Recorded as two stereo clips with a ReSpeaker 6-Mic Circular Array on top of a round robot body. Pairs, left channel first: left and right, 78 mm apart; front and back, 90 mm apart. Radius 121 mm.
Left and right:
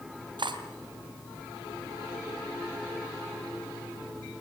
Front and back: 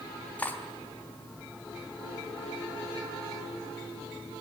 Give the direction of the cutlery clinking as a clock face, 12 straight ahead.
2 o'clock.